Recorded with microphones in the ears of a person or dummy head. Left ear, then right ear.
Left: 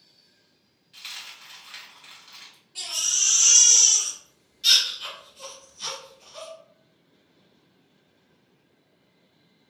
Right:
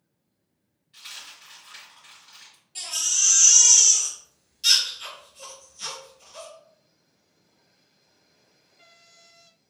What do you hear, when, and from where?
0.9 s a dropped coin: 25° left (ahead or behind), 1.9 m
2.8 s a baby crying: centre (ahead or behind), 1.3 m